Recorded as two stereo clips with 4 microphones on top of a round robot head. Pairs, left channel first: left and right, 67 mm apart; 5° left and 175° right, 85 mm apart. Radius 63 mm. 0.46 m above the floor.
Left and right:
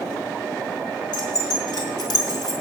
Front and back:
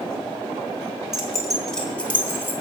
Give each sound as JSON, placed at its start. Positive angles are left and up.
{"t": 1.1, "sound": "keys jangling", "azimuth_deg": 100, "distance_m": 3.5}